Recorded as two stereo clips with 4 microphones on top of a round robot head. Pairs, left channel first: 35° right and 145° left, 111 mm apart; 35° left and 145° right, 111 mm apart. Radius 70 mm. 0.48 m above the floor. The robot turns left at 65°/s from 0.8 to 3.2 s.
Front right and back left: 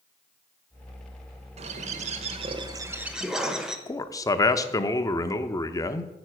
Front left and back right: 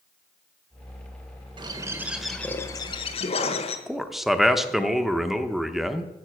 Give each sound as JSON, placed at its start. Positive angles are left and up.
{"t": 1.6, "sound": "a bird", "azimuth_deg": 165, "distance_m": 1.1}
{"t": 3.9, "sound": "a man speaking", "azimuth_deg": -60, "distance_m": 0.8}